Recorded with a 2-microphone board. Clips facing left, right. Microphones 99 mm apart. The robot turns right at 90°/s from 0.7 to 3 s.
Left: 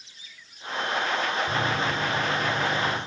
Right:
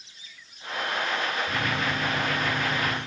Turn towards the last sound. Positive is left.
turn(degrees=-110)